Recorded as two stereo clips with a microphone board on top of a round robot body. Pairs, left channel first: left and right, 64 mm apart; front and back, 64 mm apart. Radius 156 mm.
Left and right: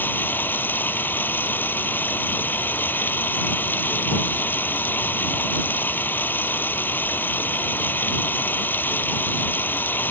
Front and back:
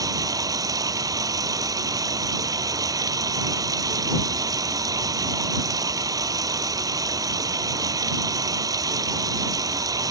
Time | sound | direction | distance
0.0 | running water | 150° left | ?